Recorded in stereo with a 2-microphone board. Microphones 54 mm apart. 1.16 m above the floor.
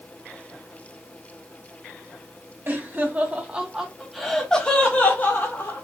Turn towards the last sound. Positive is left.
turn(degrees=45)  # may be behind; listen again after turning